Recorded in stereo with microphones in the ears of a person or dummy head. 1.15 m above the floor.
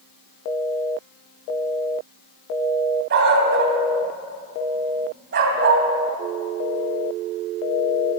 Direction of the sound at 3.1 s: 70° right (ahead or behind).